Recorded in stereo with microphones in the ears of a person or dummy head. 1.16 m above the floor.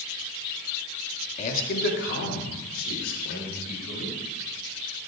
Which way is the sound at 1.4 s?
40° left (ahead or behind).